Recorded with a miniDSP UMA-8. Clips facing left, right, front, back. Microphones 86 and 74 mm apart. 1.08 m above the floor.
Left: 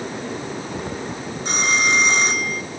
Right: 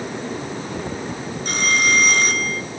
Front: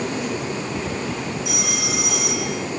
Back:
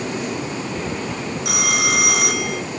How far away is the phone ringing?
About 1.5 m.